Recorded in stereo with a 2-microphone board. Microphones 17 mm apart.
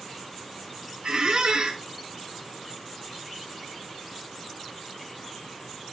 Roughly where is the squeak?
Right.